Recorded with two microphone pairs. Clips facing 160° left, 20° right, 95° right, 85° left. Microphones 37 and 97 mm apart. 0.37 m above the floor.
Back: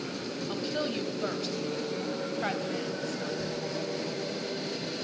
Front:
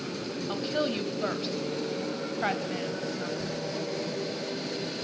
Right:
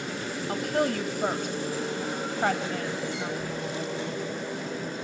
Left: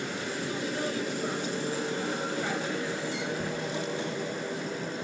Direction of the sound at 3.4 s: 80° left.